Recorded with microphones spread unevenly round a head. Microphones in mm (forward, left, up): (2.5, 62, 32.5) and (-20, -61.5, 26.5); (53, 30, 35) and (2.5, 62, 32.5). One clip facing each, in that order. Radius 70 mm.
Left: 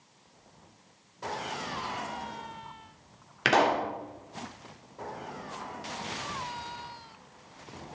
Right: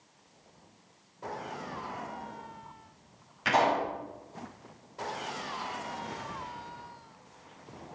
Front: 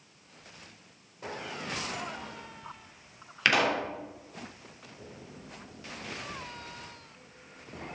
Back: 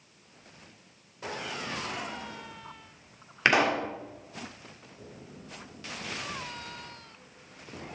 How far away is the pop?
About 2.5 m.